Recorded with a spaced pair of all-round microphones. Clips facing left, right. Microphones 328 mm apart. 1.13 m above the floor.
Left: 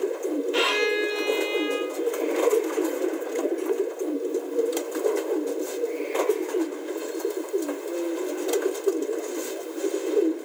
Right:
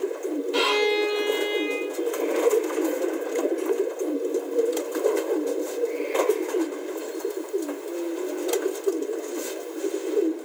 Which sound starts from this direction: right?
A violin, at 0.5 s.